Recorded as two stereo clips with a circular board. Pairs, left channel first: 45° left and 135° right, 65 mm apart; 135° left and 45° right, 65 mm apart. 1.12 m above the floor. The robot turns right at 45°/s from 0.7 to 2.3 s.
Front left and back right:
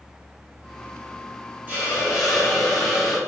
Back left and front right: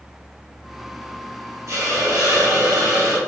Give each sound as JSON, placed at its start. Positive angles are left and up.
{"t": 1.7, "sound": "a hiss", "azimuth_deg": -75, "distance_m": 1.7}